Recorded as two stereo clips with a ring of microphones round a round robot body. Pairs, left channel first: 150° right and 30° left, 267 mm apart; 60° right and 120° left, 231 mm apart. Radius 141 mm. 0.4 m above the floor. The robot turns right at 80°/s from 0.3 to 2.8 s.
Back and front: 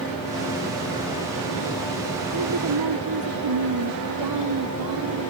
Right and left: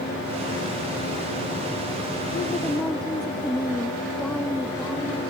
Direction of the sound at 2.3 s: 10° right.